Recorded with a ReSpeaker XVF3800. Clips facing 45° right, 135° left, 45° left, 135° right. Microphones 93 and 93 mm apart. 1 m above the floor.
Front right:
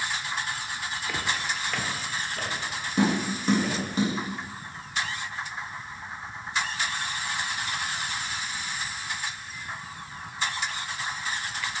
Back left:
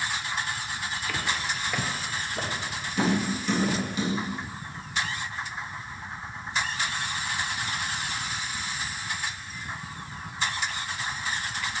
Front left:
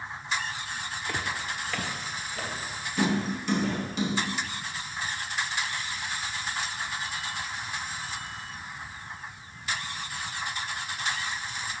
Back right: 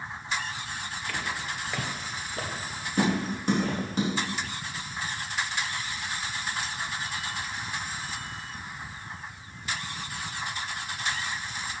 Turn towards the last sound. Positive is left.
turn(degrees=-95)